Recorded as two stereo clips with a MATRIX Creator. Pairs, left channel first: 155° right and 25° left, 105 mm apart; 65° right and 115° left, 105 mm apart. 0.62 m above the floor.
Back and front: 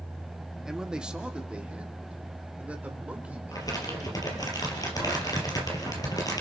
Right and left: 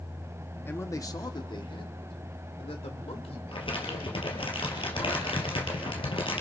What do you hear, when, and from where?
0.7 s a man speaking: 50° right, 1.1 m; by 4.5 s 55° right, 3.5 m
3.5 s crumpling: 105° right, 3.5 m